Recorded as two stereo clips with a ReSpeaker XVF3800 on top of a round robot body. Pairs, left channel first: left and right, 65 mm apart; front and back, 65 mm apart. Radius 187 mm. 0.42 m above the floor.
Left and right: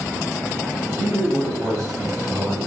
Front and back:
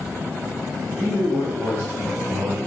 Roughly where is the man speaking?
Behind right.